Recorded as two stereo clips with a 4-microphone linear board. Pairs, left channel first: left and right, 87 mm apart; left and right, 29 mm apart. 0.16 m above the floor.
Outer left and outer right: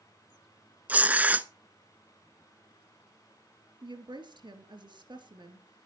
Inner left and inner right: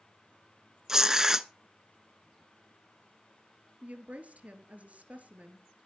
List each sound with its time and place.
0.9 s tearing paper: 20° right (ahead or behind), 0.6 m
3.8 s a woman speaking: 60° right (ahead or behind), 3 m